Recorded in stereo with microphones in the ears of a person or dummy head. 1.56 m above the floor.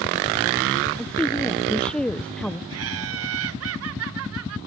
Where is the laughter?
75° right (ahead or behind).